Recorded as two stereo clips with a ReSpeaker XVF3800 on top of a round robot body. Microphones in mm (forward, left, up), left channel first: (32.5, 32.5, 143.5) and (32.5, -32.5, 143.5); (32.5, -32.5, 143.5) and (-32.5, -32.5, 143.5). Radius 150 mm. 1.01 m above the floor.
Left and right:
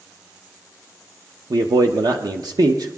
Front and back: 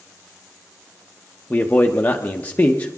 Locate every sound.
1.5 s a man speaking: 70° right, 1.0 m